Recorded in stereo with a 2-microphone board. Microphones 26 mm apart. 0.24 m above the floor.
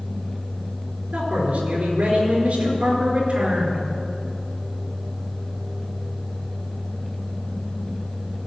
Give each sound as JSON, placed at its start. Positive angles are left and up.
{"t": 1.1, "sound": "a man speaking", "side_deg": -65, "distance_m": 4.0}